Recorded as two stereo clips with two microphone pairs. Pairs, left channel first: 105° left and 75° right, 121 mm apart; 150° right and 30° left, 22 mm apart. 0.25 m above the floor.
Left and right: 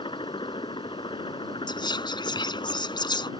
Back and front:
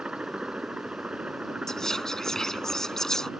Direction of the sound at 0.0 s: 65° left.